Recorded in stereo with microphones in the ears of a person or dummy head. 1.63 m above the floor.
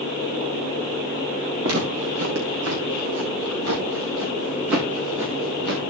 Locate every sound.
1.6 s footsteps: 75° right (ahead or behind), 7.5 m; by 5.8 s 70° right (ahead or behind), 7 m